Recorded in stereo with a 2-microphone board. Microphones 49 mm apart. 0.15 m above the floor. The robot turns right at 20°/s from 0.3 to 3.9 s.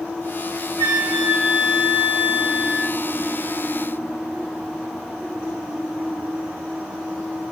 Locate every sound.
0.8 s a flute: 5° right (ahead or behind), 1.8 m; by 3.0 s 20° right (ahead or behind), 1.8 m